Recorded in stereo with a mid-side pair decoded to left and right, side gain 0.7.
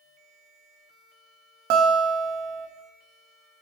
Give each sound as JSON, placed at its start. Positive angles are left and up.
{"t": 1.7, "sound": "a guitar", "azimuth_deg": -65, "distance_m": 1.3}